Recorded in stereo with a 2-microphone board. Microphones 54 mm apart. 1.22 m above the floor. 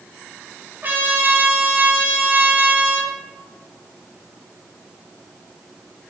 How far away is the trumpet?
About 1.8 m.